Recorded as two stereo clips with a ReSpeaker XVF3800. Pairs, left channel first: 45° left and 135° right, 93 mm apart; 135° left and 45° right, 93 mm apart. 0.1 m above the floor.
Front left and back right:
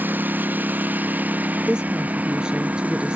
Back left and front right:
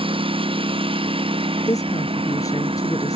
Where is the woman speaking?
150° left.